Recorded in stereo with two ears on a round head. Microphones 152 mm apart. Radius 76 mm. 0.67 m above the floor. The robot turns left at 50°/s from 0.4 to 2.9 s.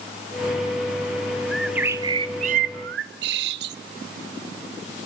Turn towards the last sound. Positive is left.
turn(degrees=-65)